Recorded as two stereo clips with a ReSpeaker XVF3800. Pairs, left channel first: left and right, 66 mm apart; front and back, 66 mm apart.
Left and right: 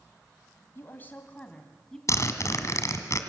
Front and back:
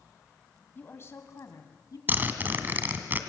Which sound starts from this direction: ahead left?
A woman speaking, at 0.8 s.